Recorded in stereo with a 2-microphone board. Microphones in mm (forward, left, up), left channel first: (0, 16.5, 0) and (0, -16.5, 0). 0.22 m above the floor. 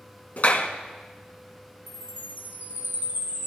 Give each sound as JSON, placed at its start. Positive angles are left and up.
{"t": 0.4, "sound": "a clap", "side_deg": 50, "distance_m": 1.6}
{"t": 1.9, "sound": "a chime", "side_deg": -70, "distance_m": 6.0}